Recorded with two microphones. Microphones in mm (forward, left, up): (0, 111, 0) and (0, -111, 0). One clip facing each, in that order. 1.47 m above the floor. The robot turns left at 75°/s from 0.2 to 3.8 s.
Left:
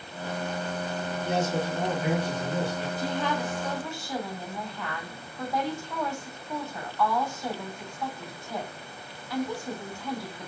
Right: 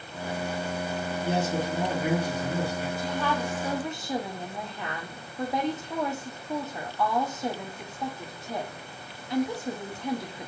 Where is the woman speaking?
40° left, 1.2 m; by 10.5 s 20° right, 1.2 m.